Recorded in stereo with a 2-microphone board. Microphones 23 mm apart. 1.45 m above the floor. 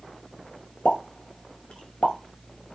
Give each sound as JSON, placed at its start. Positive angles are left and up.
{"t": 0.8, "sound": "a pop", "side_deg": 70, "distance_m": 0.6}